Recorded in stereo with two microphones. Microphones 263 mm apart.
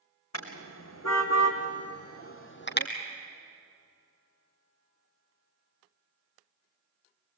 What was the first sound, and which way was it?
A car horn, 80° left.